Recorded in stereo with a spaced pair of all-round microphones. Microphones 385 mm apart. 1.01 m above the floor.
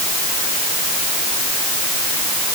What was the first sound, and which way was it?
Only background noise.